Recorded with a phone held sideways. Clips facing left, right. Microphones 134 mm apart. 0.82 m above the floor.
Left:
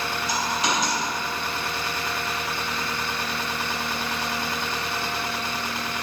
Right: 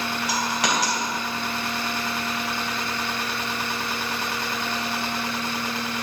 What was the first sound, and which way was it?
A dropped coin, 85° right.